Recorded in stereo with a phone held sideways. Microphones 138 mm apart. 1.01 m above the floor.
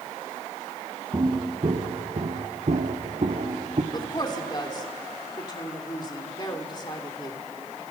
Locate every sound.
1.1 s footsteps: 25° right (ahead or behind), 2 m; by 3.8 s 45° right (ahead or behind), 3 m
3.9 s a woman speaking: 30° left (ahead or behind), 3 m